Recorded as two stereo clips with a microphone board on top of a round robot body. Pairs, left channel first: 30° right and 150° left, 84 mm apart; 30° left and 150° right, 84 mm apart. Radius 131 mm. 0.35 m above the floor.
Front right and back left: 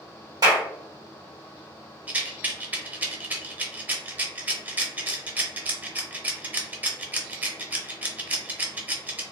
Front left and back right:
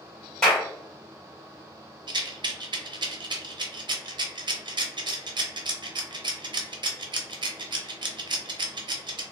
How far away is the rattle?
About 0.6 m.